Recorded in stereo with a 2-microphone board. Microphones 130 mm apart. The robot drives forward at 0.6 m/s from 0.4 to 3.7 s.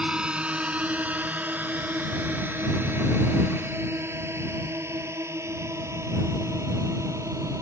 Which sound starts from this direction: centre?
A drone, at 0.0 s.